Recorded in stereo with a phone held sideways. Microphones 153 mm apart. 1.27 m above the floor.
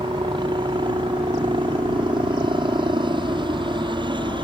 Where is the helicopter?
35° right (ahead or behind).